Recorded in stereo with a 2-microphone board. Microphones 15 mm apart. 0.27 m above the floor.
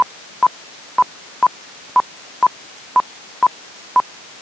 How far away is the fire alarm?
No fire alarm in this recording.